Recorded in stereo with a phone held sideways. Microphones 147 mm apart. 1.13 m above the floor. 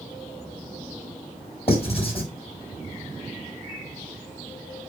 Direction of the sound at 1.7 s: 40° left (ahead or behind).